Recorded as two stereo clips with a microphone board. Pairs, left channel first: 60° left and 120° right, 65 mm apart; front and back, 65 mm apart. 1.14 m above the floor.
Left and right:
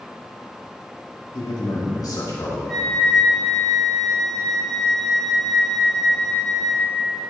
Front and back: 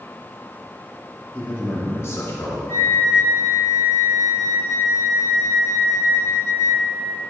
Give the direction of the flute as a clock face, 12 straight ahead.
1 o'clock.